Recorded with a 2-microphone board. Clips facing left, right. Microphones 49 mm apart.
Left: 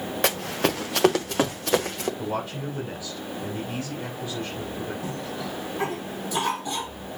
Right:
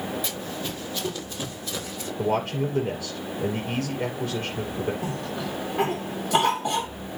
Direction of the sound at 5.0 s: 75° right (ahead or behind).